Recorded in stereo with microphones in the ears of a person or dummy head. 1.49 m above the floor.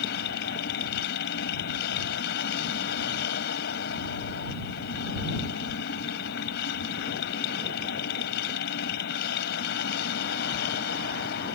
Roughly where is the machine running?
Left.